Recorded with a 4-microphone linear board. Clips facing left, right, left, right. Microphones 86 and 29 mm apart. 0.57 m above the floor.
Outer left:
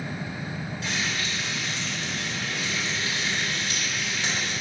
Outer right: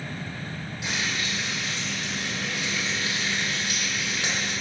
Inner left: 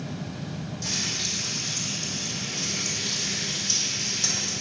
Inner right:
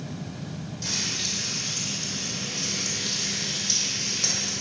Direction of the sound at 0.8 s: 15° right (ahead or behind).